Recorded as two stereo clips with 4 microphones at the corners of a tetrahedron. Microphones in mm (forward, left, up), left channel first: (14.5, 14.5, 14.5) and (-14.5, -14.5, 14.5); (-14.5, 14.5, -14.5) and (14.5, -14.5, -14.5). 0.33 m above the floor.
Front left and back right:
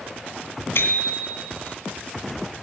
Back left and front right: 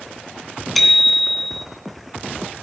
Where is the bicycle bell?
50° left, 2 m.